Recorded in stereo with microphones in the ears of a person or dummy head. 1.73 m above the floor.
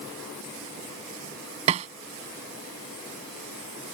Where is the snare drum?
35° right (ahead or behind).